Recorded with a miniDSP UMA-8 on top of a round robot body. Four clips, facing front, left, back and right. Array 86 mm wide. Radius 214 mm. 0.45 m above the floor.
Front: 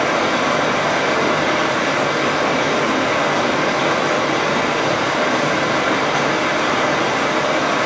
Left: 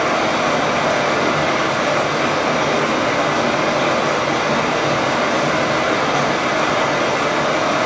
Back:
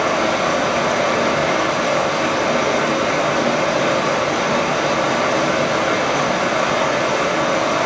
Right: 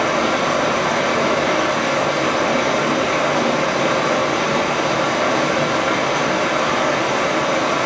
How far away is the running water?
About 1.5 m.